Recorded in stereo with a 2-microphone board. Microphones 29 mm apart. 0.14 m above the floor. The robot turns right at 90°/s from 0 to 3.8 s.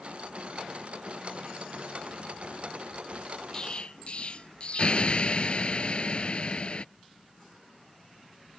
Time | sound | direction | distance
3.5 | an explosion | 20° left (ahead or behind) | ?